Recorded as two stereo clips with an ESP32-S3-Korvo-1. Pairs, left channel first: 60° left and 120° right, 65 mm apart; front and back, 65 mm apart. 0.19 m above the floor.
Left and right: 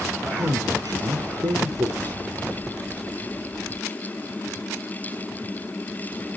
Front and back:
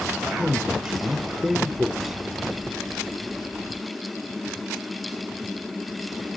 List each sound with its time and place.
0.4 s a man speaking: 95° right, 4 m